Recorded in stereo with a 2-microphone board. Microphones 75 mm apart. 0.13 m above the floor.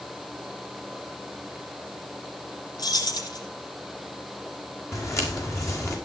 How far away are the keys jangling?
About 3 m.